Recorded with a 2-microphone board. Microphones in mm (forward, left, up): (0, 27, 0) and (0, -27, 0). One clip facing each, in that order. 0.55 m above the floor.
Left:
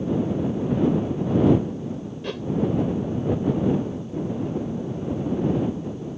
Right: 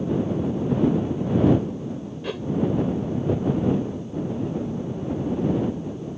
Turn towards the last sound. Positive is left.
turn(degrees=-5)  # may be behind; listen again after turning